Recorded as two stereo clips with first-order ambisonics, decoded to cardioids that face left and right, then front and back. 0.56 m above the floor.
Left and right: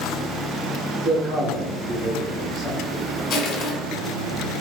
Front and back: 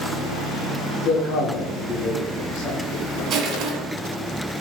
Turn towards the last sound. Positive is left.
turn(degrees=145)